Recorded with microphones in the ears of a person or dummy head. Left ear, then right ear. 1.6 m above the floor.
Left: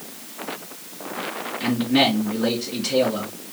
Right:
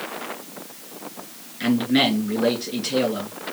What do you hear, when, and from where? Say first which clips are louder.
1.6 s a man speaking: even; 15° right (ahead or behind), 3 m